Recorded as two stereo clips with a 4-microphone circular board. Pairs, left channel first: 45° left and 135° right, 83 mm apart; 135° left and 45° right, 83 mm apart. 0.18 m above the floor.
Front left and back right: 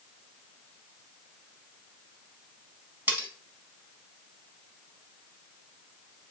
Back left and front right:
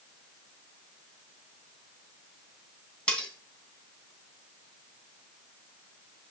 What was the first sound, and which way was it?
Cutlery clinking, 165° right.